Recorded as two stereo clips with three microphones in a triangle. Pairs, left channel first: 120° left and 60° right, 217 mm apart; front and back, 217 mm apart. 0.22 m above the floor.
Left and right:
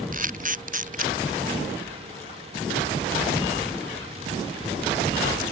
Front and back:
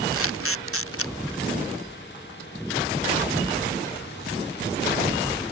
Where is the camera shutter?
10° right.